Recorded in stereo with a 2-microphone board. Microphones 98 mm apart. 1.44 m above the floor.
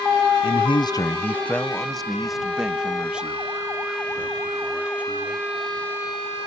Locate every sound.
0.4 s a man speaking: 65° left (ahead or behind); by 5.5 s 15° right (ahead or behind)